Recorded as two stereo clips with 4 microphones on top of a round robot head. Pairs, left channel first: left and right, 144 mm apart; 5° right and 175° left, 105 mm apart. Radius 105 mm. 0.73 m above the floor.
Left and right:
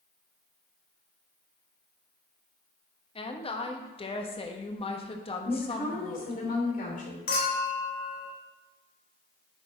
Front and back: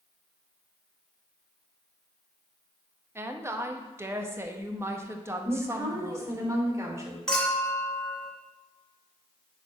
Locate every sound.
3.1 s a woman speaking: 120° left, 1.3 m
5.4 s a woman speaking: 115° left, 3 m
7.3 s a clink: 80° left, 2.5 m